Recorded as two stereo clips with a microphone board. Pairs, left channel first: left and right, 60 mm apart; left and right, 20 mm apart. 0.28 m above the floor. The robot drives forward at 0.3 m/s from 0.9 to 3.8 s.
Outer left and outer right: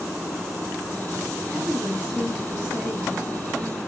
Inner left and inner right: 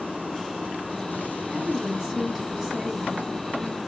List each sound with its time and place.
1.5 s a woman speaking: 25° right (ahead or behind), 2 m; by 3.3 s 20° right (ahead or behind), 2.5 m